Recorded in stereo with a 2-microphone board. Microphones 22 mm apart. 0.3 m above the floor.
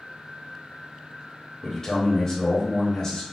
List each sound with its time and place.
1.6 s a man speaking: 25° left (ahead or behind), 0.9 m